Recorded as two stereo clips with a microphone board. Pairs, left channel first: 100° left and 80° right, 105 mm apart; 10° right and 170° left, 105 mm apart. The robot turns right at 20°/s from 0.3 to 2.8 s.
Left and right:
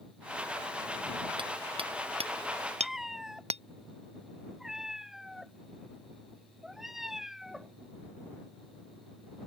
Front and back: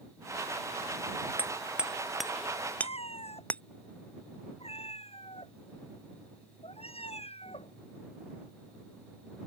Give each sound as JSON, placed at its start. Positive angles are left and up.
{"t": 1.4, "sound": "hammering", "azimuth_deg": -115}
{"t": 2.8, "sound": "a cat meowing", "azimuth_deg": 5}